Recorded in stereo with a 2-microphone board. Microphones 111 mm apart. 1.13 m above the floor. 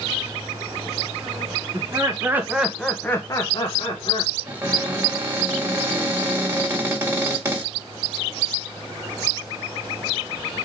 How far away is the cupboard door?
About 1.9 m.